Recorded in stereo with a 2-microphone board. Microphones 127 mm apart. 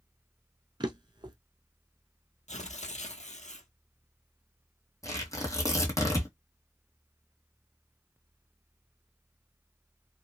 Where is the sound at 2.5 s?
70° left (ahead or behind), 0.9 m.